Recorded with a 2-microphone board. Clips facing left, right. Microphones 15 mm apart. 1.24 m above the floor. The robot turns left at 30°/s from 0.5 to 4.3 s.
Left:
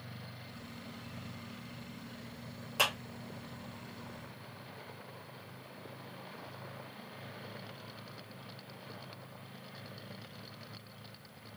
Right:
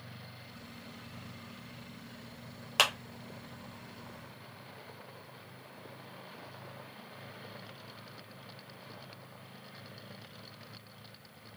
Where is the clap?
70° right (ahead or behind), 1.0 m; by 2.9 s 75° right (ahead or behind), 1.0 m.